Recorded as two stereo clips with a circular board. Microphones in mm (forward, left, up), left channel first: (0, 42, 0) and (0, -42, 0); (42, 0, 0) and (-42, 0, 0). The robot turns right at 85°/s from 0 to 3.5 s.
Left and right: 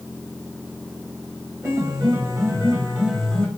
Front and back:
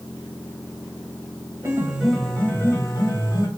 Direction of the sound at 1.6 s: 135° right.